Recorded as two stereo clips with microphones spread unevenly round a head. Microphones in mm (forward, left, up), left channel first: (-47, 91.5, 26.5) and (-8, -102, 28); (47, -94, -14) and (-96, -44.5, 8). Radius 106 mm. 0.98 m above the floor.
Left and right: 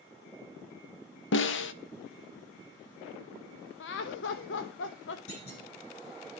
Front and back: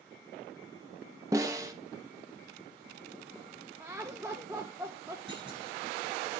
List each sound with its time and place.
1.3 s a snare drum: 80° left, 0.8 m
3.8 s laughter: 75° left, 0.8 m
5.3 s a clunk: 70° left, 9 m